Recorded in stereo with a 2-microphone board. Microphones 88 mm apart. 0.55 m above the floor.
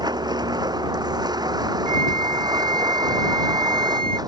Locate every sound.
0.0 s a vehicle: 50° right (ahead or behind)
1.9 s a flute: 70° right (ahead or behind)